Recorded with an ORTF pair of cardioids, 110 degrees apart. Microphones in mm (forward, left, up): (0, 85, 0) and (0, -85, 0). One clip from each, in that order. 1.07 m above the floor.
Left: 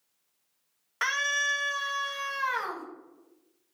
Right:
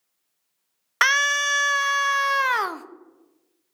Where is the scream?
60° right, 0.7 m.